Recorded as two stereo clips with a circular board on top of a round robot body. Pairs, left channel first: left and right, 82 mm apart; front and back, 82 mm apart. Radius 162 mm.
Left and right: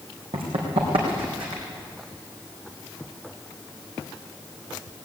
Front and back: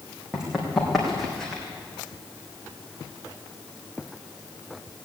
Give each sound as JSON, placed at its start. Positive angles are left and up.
{"t": 0.3, "sound": "running footsteps", "azimuth_deg": -100, "distance_m": 3.0}